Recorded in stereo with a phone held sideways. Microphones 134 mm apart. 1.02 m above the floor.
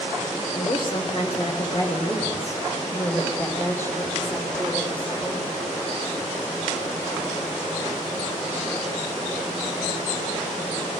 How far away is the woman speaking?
About 3.5 m.